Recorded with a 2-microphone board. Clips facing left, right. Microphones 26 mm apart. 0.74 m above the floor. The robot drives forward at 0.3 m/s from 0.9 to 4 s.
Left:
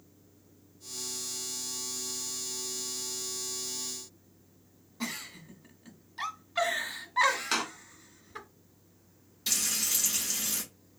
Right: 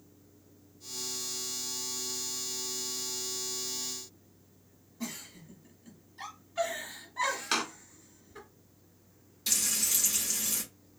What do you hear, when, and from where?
5.0 s a giggle: 65° left (ahead or behind), 1.2 m
7.5 s a door slam: 5° right (ahead or behind), 0.7 m
9.5 s frying: 10° left (ahead or behind), 1.8 m